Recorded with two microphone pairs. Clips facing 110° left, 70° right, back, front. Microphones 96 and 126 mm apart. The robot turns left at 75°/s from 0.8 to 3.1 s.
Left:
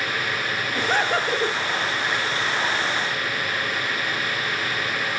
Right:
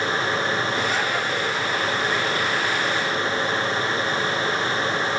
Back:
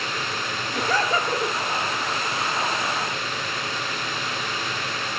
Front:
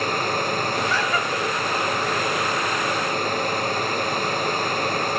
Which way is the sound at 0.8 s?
150° left.